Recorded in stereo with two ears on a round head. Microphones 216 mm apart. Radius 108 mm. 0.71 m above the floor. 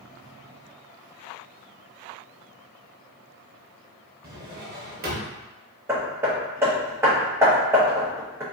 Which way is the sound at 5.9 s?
10° right (ahead or behind).